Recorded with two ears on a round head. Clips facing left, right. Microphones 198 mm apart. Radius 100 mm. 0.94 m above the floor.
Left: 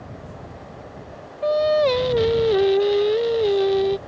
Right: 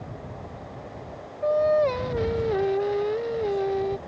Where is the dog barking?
I don't hear a dog barking.